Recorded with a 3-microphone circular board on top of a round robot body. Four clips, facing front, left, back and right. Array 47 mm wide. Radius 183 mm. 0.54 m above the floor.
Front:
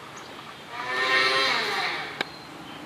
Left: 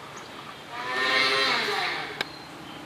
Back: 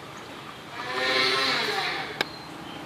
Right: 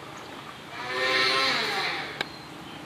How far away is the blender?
About 0.5 m.